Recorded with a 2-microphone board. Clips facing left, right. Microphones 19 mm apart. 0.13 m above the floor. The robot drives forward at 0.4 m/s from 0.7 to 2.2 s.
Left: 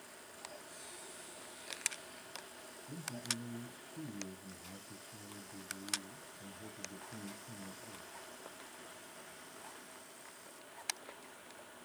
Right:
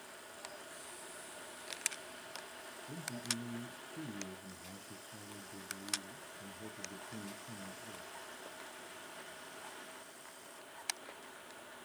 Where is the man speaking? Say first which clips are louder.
Even; 40° right (ahead or behind), 1.6 m.